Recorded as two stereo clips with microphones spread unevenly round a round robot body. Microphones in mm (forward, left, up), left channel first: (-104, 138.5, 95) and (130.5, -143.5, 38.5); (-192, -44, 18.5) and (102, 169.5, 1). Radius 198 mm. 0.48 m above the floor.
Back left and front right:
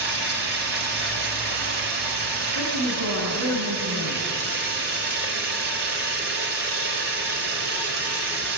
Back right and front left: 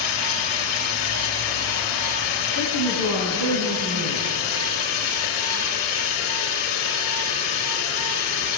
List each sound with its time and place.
0.0 s running water: 105° right, 2.5 m
2.5 s a woman speaking: 5° right, 4.5 m